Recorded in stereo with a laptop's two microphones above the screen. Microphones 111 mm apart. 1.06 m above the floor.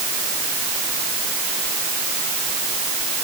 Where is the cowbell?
No cowbell in this recording.